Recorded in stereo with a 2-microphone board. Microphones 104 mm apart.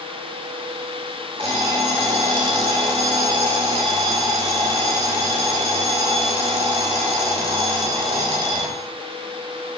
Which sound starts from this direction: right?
An alarm clock, at 1.4 s.